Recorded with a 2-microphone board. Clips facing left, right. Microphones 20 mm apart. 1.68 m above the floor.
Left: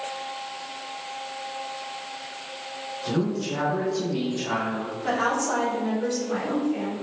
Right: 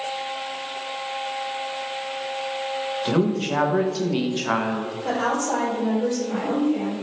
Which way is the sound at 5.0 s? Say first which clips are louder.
Even; 40° left (ahead or behind).